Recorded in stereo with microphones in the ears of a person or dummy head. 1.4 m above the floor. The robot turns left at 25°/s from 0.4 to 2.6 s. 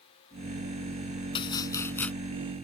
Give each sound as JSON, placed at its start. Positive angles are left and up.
{"t": 1.4, "sound": "chopping", "side_deg": 30}